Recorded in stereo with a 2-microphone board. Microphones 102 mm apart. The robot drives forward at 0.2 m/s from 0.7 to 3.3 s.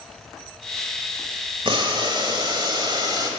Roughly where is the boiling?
Right.